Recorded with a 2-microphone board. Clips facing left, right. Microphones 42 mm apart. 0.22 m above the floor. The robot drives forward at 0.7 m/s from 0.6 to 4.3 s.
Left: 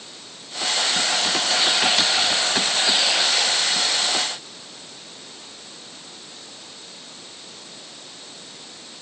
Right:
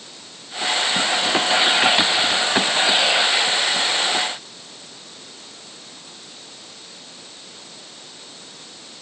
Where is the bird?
No bird in this recording.